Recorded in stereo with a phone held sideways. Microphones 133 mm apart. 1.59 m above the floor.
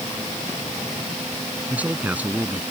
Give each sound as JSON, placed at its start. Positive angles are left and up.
{"t": 1.7, "sound": "a man speaking", "side_deg": -10}